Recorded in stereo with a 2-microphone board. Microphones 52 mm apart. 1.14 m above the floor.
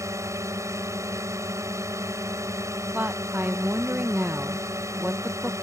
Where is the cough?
No cough in this recording.